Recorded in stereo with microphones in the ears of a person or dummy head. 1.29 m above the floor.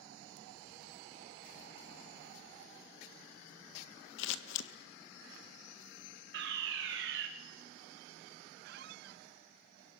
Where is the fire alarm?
65° right (ahead or behind), 3 m.